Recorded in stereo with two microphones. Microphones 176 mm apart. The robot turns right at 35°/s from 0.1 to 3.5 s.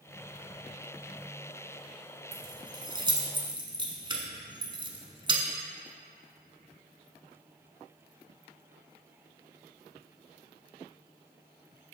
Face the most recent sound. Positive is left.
turn(degrees=-30)  # may be behind; listen again after turning